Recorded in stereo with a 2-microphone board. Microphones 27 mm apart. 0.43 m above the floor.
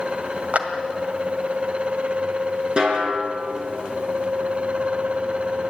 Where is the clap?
50° right (ahead or behind), 1.8 m.